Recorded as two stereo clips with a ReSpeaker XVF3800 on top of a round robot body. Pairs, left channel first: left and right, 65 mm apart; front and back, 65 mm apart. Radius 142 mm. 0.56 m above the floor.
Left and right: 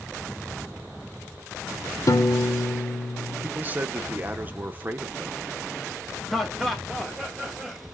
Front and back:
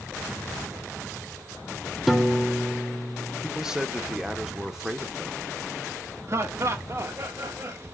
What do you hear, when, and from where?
2.1 s a piano: 95° left, 1.1 m
3.4 s a man speaking: 105° right, 1.0 m
6.3 s laughter: 175° left, 0.8 m